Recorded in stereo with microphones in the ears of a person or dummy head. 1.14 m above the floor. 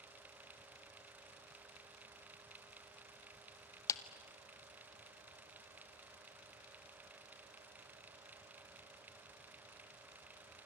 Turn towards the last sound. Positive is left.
turn(degrees=15)  # may be behind; listen again after turning